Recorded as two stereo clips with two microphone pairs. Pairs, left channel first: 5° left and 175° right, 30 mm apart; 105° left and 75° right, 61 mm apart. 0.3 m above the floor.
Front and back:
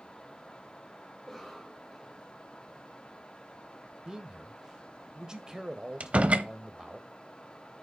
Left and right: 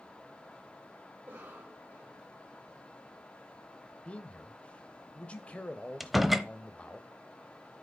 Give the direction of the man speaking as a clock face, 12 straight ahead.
7 o'clock.